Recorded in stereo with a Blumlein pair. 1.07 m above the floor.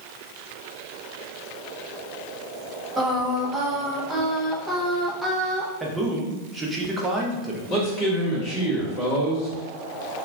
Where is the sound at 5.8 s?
10° right, 0.7 m.